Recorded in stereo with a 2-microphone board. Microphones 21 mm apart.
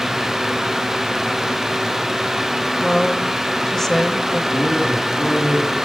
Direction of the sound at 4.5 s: 80° left.